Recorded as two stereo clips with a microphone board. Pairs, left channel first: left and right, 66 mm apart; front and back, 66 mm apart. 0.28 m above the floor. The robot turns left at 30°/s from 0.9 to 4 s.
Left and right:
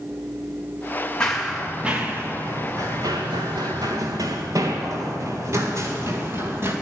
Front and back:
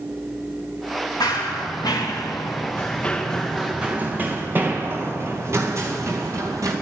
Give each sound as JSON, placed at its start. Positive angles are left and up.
{"t": 1.2, "sound": "running footsteps", "azimuth_deg": 15, "distance_m": 2.5}